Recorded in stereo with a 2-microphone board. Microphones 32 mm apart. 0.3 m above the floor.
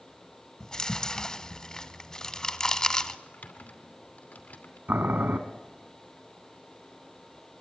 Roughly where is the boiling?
Right.